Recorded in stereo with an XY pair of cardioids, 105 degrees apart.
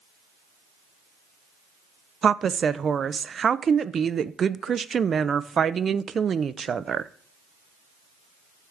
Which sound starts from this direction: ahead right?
A woman speaking, at 2.2 s.